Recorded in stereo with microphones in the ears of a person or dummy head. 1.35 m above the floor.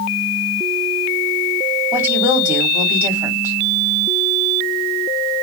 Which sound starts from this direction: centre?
A woman speaking, at 1.9 s.